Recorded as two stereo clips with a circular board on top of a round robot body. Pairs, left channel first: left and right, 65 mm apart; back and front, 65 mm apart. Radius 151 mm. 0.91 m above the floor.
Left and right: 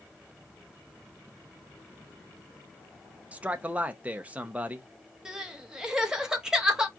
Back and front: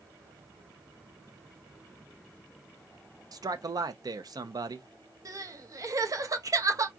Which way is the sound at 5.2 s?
10° right.